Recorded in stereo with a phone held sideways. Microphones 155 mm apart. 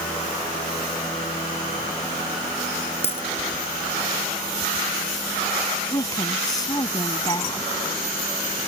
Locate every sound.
3.0 s a dropped coin: 40° left (ahead or behind)
5.9 s a woman speaking: 25° left (ahead or behind)